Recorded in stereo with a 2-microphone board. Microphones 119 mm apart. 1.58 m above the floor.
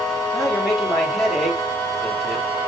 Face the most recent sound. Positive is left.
turn(degrees=0)  # may be behind; listen again after turning